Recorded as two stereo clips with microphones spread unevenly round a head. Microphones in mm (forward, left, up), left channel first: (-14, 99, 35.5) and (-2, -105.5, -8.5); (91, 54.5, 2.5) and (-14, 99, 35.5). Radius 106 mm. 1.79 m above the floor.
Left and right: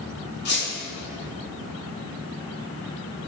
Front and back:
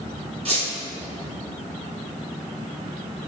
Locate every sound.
0.5 s a squeak: 130° left, 3 m